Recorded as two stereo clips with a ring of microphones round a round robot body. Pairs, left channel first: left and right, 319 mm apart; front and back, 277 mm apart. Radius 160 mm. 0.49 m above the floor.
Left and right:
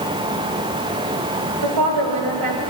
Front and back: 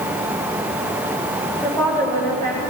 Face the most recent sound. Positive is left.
turn(degrees=-80)